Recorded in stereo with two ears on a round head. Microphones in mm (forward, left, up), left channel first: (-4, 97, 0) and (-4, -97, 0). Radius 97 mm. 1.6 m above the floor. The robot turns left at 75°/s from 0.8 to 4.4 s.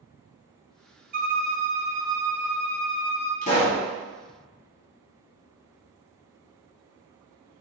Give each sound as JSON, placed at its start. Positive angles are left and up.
{"t": 1.1, "sound": "a violin", "azimuth_deg": -80, "distance_m": 0.6}
{"t": 3.4, "sound": "a pop", "azimuth_deg": 45, "distance_m": 1.5}